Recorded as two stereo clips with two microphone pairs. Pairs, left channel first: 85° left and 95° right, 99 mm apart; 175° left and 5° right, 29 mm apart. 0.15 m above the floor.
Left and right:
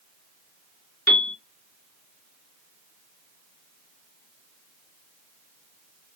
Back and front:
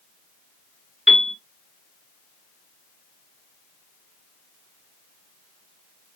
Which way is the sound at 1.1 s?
35° left.